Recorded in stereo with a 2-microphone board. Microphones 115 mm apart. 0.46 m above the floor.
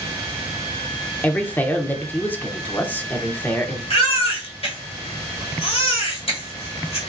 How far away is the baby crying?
About 1.3 m.